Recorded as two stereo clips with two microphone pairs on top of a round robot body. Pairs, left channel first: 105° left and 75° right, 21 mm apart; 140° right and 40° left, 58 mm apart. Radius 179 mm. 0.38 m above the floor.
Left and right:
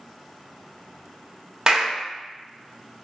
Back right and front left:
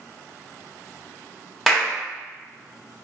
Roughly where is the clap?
Ahead right.